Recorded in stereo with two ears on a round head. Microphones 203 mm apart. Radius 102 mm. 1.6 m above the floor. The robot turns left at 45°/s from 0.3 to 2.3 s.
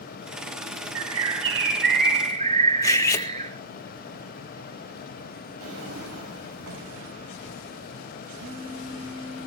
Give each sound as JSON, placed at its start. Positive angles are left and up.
{"t": 0.9, "sound": "a bird", "azimuth_deg": -85, "distance_m": 3.0}
{"t": 2.8, "sound": "cutlery clinking", "side_deg": 15, "distance_m": 1.7}
{"t": 5.6, "sound": "a drawer", "side_deg": -75, "distance_m": 5.0}
{"t": 8.4, "sound": "a phone buzzing", "side_deg": -60, "distance_m": 3.0}